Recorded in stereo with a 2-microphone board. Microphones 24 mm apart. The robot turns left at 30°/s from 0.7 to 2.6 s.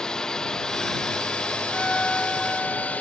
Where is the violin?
50° left (ahead or behind); by 3.0 s 25° left (ahead or behind).